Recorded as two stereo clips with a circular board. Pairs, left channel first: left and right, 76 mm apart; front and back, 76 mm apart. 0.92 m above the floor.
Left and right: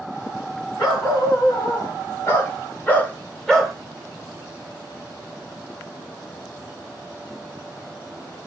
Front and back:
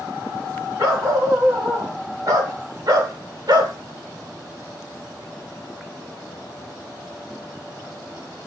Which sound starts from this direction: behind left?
A dog barking, at 0.8 s.